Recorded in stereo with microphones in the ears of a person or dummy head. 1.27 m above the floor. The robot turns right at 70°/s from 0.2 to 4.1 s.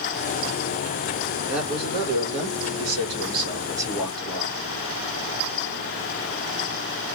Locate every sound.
1.5 s a man speaking: straight behind, 1.8 m; by 4.6 s 5° left, 1.8 m